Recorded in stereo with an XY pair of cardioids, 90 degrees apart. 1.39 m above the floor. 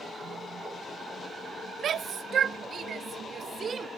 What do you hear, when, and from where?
1.8 s a shout: 65° right; by 3.9 s 50° right